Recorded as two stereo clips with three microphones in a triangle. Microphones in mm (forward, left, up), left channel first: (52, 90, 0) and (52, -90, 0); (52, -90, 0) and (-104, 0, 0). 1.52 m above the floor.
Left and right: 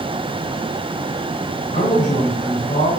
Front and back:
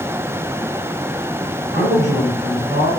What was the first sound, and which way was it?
A man speaking, 140° left.